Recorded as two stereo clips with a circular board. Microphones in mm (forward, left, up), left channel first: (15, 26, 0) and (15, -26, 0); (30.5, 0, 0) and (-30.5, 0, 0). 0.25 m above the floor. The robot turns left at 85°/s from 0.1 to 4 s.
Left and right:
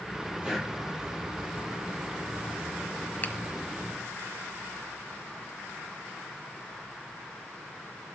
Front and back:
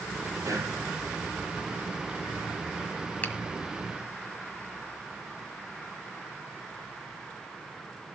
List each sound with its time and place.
0.4 s breathing: 160° right, 7.5 m; by 0.7 s straight behind, 7.5 m
3.2 s a finger snap: 50° left, 1.5 m; by 3.3 s 40° left, 1.5 m